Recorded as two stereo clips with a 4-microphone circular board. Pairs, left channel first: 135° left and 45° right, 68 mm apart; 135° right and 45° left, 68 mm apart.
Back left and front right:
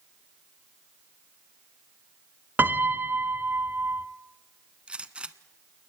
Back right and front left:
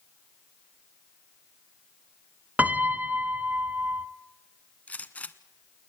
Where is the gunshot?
95° right, 1.0 m.